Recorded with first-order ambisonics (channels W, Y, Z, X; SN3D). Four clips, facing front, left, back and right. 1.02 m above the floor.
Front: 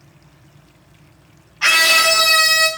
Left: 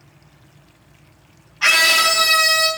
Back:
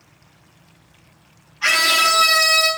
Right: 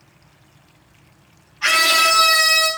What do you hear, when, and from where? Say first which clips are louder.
1.6 s a scream: left 1 dB, front 3 dB; 40° left, 1.1 m; by 2.7 s 20° left, 2.5 m